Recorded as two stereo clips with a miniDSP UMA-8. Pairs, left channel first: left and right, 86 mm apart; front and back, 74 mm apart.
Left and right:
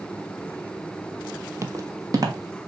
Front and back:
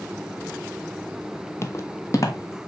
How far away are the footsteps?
About 0.7 m.